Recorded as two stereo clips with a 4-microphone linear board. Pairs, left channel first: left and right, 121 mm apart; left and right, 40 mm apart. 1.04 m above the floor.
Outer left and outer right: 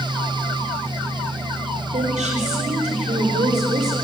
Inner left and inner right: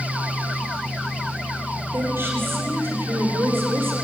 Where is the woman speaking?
70° right (ahead or behind), 3.5 m.